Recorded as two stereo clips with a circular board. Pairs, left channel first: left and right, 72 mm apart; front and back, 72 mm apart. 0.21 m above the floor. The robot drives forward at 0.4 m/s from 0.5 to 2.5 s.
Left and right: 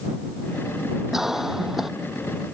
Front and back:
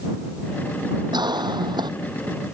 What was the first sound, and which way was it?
A cough, 175° right.